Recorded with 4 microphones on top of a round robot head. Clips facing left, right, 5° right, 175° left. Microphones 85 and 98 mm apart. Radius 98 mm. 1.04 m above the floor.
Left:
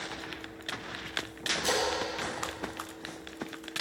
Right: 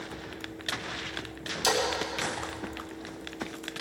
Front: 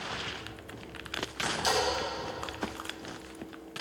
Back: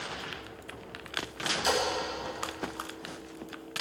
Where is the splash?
95° right, 2.5 m.